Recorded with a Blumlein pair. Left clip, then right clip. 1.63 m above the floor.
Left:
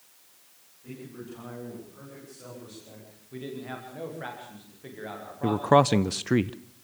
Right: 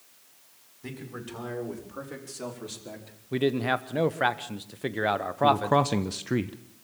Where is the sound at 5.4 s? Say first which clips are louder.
Left 2 dB; 15° left, 0.5 m.